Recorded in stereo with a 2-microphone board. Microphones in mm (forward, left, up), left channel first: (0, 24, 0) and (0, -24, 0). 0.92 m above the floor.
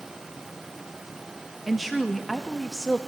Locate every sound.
1.7 s a woman speaking: 5° right (ahead or behind), 0.9 m